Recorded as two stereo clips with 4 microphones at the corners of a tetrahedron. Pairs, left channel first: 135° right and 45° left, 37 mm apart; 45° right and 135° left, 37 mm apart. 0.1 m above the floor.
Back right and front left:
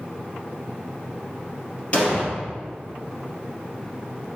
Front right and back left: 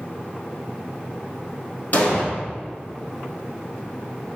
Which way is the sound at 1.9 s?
80° right.